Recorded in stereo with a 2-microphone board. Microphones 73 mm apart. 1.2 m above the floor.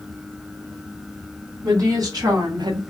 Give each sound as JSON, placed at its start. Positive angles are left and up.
{"t": 1.6, "sound": "a woman speaking", "side_deg": -50, "distance_m": 1.2}